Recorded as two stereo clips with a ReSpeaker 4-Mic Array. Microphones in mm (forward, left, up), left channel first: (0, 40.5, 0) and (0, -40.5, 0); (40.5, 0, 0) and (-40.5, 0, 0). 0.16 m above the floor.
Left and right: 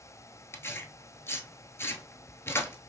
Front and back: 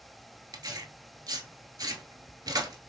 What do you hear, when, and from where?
0.5 s tearing paper: 150° left, 0.6 m